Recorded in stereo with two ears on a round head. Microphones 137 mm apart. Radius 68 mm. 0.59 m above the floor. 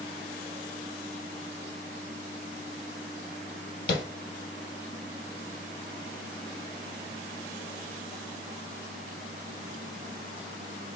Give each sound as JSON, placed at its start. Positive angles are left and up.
{"t": 3.9, "sound": "tapping", "side_deg": 75, "distance_m": 2.0}